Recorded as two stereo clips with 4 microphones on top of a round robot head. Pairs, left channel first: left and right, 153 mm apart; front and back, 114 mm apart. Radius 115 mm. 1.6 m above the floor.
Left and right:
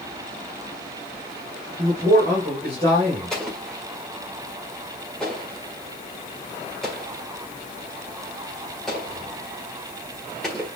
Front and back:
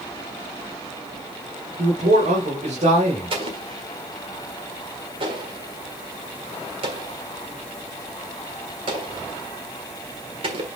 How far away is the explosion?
About 1.6 m.